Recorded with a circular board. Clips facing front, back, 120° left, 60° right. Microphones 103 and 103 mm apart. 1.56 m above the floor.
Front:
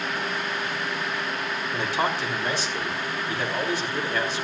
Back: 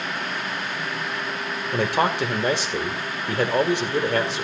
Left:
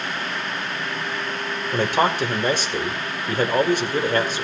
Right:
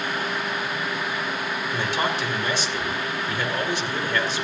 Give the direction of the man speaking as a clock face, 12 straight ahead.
7 o'clock.